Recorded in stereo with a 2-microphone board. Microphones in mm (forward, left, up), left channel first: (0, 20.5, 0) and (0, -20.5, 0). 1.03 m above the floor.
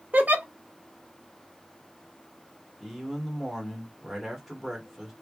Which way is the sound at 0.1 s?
45° right (ahead or behind).